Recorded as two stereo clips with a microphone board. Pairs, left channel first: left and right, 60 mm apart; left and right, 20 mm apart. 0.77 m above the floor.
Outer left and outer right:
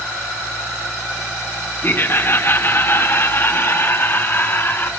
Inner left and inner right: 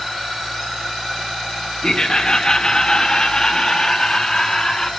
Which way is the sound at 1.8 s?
35° left (ahead or behind).